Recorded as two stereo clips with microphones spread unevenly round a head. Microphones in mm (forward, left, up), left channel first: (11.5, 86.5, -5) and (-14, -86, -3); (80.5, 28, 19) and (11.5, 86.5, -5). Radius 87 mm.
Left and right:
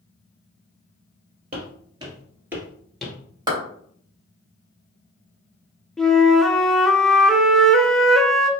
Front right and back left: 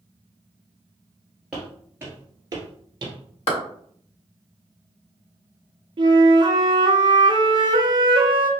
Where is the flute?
170° left, 0.6 m.